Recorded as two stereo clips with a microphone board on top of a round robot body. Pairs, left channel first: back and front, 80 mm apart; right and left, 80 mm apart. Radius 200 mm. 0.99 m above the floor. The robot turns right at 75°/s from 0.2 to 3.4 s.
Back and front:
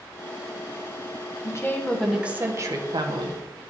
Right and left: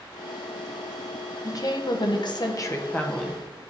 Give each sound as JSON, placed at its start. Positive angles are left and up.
{"t": 1.4, "sound": "a woman speaking", "azimuth_deg": -135, "distance_m": 1.2}